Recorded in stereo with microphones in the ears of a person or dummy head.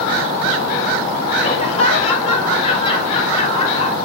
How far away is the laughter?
About 1.1 m.